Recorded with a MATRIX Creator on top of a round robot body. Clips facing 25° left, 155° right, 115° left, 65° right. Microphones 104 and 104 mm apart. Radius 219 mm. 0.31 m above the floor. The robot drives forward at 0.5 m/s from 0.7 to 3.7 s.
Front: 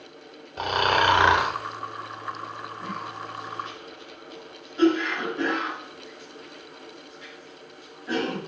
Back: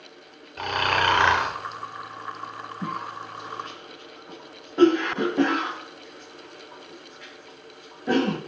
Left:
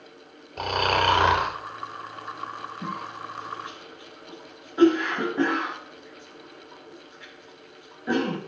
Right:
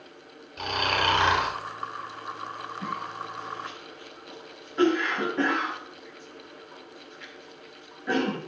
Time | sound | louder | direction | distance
0.6 | snoring | front 2 dB, left 4 dB | 85° left | 3 m
2.8 | a cough | back 4 dB, right 1 dB | 175° right | 7 m